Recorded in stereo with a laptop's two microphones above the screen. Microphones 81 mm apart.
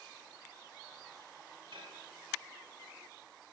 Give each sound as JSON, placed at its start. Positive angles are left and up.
{"t": 1.7, "sound": "dishes clattering", "side_deg": -85, "distance_m": 3.5}